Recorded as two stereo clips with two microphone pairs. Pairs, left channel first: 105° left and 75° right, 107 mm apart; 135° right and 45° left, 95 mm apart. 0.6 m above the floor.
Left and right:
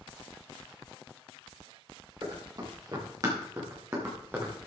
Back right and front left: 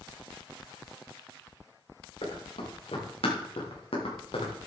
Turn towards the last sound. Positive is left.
turn(degrees=-145)